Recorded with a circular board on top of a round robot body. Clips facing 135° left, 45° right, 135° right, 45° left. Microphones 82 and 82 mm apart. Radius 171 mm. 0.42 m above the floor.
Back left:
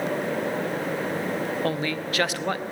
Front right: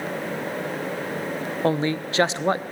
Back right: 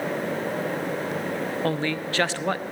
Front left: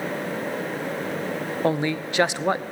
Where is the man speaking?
15° right, 1.1 m.